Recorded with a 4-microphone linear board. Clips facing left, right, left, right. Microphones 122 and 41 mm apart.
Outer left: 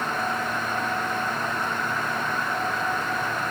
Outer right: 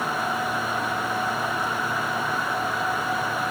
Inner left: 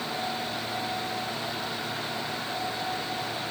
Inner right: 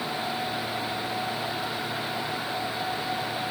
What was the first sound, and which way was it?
Only background noise.